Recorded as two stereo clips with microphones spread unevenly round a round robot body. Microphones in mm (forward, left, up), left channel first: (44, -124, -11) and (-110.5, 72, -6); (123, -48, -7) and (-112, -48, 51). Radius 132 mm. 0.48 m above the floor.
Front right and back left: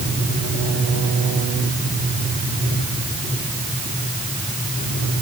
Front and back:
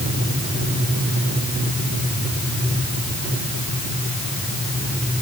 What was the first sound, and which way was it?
Only background noise.